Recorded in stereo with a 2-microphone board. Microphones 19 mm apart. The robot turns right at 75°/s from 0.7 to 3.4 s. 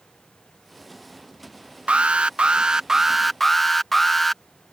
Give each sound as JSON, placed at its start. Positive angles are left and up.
{"t": 1.9, "sound": "an alarm", "azimuth_deg": -100}